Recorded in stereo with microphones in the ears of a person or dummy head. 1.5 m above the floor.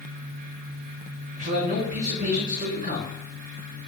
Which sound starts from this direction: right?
A man speaking, at 1.4 s.